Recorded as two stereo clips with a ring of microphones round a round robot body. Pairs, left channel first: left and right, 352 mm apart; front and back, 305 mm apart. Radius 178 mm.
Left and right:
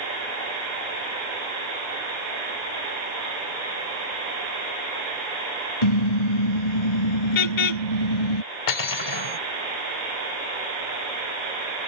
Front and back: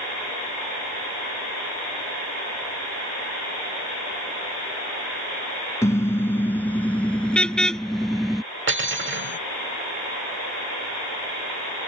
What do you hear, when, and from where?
5.8 s a car horn: 80° left; by 8.4 s 90° left
8.7 s cutlery clinking: 125° left